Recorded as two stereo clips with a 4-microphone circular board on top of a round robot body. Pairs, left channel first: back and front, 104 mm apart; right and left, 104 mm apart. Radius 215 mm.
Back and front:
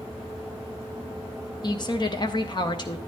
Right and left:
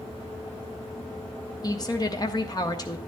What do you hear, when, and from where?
1.6 s a woman speaking: 140° right, 1.2 m